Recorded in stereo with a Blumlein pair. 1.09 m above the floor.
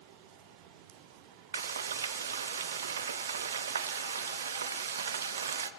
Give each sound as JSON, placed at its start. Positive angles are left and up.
{"t": 1.5, "sound": "frying", "azimuth_deg": -65, "distance_m": 0.8}